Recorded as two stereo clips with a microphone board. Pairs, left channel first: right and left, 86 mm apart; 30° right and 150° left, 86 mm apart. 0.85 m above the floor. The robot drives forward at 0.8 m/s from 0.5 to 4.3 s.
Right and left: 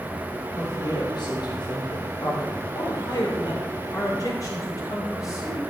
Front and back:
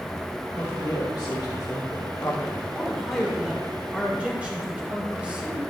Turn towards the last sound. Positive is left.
turn(degrees=-135)